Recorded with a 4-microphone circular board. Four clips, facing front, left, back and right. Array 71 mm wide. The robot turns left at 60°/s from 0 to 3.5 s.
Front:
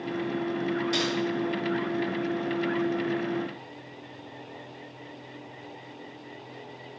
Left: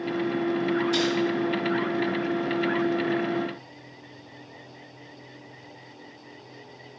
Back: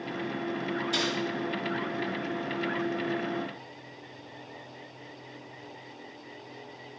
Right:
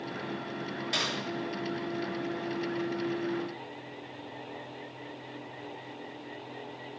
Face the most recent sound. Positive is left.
turn(degrees=150)